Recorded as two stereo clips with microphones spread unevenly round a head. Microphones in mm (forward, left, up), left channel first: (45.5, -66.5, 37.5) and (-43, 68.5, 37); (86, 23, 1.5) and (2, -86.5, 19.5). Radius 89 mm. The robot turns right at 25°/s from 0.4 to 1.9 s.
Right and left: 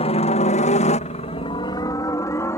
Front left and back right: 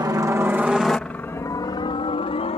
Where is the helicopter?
75° right; by 2.6 s 15° left.